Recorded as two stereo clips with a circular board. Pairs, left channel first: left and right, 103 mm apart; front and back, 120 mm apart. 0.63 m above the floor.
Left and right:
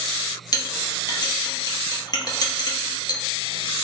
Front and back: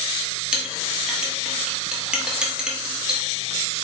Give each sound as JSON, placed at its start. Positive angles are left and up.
{"t": 0.5, "sound": "a clink", "azimuth_deg": 100, "distance_m": 0.7}